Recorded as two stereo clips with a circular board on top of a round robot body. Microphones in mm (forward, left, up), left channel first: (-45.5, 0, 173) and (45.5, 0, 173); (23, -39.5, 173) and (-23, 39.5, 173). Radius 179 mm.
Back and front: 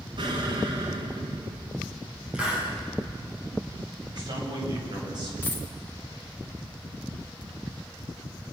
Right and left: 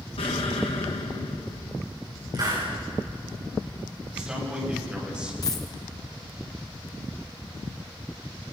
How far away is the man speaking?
About 8.5 m.